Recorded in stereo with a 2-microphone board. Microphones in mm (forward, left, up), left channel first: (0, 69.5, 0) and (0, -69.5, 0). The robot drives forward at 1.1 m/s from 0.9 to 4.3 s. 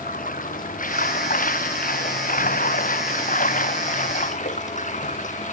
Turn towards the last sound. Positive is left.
turn(degrees=65)  # may be behind; listen again after turning